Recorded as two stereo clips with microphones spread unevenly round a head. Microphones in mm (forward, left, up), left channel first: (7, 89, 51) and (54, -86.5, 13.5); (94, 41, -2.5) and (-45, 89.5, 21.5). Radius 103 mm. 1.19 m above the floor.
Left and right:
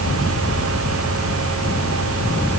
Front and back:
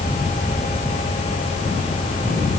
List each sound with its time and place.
Only background noise.